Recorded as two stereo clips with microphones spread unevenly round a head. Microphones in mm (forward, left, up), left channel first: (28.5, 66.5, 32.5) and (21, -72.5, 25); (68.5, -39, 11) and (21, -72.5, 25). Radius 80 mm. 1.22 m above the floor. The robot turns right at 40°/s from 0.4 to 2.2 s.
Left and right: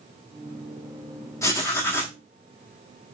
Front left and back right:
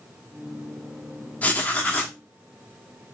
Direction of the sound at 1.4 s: 100° left.